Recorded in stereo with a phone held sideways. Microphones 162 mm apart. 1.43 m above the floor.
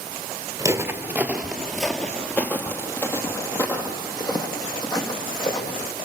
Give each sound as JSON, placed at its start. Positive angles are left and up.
{"t": 0.6, "sound": "footsteps", "side_deg": -20, "distance_m": 1.5}